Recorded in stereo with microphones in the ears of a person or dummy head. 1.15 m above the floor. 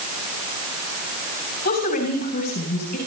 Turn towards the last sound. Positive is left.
turn(degrees=45)  # may be behind; listen again after turning